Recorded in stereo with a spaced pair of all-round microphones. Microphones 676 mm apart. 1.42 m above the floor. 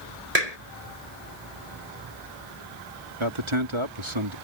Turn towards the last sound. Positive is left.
turn(degrees=-45)  # may be behind; listen again after turning